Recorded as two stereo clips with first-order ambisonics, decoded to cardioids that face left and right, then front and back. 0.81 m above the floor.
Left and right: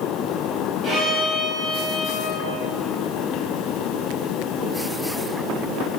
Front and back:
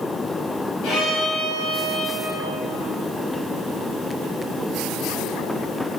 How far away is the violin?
About 3.5 m.